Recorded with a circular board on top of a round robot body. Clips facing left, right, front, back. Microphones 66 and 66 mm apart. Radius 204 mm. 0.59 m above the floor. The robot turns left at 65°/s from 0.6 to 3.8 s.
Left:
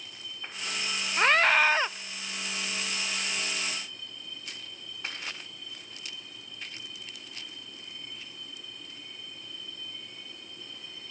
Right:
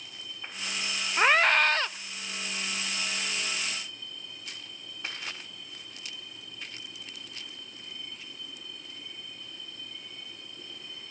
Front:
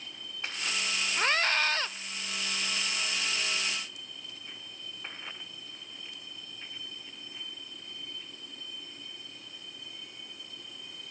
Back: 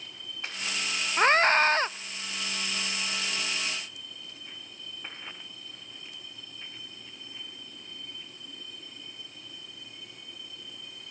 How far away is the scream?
About 0.6 m.